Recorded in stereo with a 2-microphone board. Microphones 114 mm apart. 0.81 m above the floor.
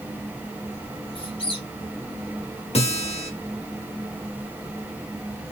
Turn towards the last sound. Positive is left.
turn(degrees=65)  # may be behind; listen again after turning